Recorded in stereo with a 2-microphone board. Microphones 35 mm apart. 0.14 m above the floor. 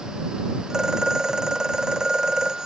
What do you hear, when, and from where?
0.7 s a phone ringing: 15° right (ahead or behind)